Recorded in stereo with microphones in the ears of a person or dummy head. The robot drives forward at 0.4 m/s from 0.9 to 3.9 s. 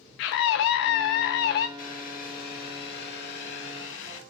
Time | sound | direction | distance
0.2 | a scream | 60° left (ahead or behind) | 0.7 m
1.8 | boiling | 50° left (ahead or behind) | 1.9 m